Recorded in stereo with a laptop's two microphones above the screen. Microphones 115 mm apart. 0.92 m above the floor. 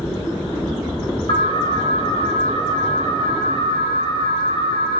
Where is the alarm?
45° left (ahead or behind), 6.5 m.